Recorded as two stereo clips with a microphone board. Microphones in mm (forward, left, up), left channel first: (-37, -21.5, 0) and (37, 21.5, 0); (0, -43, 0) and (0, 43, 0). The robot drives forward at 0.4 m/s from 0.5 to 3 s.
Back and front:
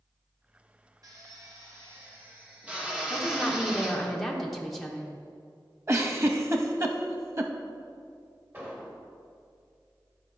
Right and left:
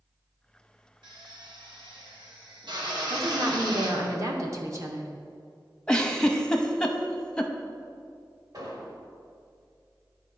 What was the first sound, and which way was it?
A drill, 70° left.